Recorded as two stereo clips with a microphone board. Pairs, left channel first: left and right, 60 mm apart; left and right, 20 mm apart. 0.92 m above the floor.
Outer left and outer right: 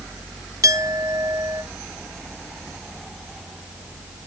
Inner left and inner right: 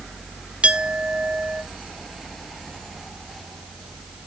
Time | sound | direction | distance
0.6 | a clink | 75° right (ahead or behind) | 1.1 m